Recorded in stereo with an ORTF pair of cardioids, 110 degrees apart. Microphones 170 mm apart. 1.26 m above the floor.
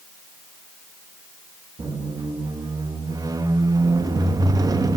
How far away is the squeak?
About 1.2 m.